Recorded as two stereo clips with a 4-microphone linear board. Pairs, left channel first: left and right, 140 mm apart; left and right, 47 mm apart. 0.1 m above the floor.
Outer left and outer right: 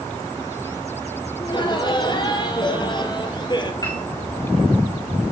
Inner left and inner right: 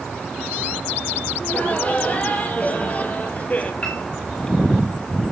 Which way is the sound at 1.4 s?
35° left (ahead or behind).